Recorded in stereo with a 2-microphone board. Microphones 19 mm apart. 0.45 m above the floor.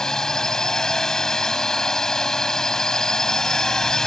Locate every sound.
0.0 s a drone: 30° left (ahead or behind)